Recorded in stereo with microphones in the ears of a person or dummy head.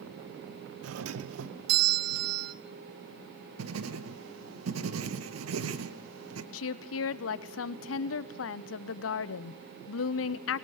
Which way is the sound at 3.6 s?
80° right.